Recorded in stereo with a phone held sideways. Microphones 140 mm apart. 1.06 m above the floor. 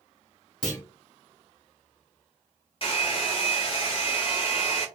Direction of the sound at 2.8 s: 45° left (ahead or behind).